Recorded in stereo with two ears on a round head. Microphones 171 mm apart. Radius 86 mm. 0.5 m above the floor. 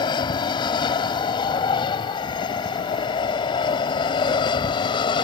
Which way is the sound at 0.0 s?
25° left (ahead or behind).